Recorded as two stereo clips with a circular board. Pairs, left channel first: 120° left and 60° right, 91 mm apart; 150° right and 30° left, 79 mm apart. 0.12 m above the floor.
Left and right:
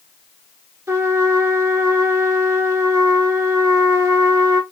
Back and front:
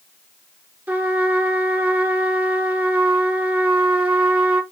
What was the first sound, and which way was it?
A trumpet, 25° right.